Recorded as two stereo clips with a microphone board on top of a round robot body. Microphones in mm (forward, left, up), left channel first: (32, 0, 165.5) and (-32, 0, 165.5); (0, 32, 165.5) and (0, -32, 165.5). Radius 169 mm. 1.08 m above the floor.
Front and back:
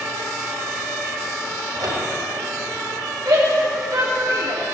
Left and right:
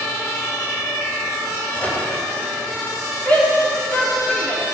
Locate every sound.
1.8 s a microwave: 155° left, 4.5 m
3.2 s a shout: 160° left, 4 m